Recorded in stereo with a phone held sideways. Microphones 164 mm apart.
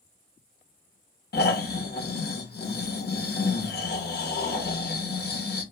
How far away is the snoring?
About 0.7 m.